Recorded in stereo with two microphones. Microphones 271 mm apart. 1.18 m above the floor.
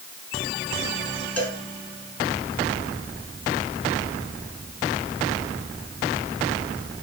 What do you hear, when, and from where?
1.4 s a cowbell: 65° left (ahead or behind), 5 m